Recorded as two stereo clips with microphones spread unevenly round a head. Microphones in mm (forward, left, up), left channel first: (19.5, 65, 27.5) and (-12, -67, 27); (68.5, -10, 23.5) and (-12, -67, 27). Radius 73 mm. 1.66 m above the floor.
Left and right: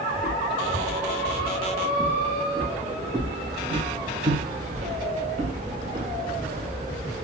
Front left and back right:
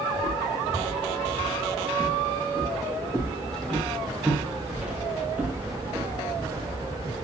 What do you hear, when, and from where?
0.1 s footsteps: 10° right, 3.5 m; by 6.7 s 100° right, 2.5 m